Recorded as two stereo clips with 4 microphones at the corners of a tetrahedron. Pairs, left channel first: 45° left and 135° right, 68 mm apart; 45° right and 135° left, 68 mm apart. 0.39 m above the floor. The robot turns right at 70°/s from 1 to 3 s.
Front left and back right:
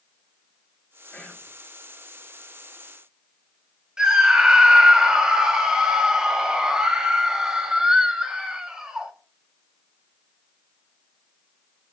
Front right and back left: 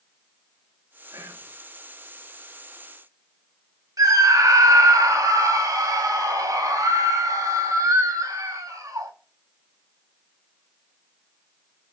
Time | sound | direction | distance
1.1 | whispering | 110° left | 2.5 m
4.0 | a scream | 150° left | 2 m